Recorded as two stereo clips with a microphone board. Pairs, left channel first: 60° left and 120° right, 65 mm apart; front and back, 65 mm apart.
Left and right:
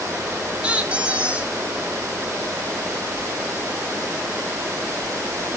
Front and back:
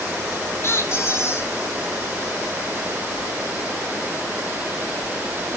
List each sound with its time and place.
0.6 s a squeak: 45° right, 1.3 m